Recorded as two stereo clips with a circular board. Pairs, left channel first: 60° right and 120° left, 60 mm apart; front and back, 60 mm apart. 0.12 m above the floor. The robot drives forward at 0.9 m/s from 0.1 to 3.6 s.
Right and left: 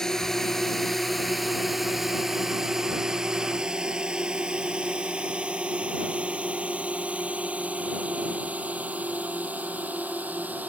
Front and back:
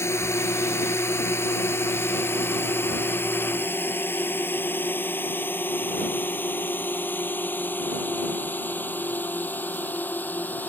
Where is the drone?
20° left; by 10.7 s 60° left.